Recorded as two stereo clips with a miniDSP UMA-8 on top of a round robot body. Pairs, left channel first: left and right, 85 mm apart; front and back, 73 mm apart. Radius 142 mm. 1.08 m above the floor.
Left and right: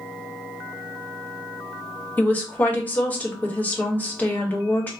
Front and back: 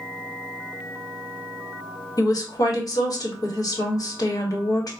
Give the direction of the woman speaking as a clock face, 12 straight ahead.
11 o'clock.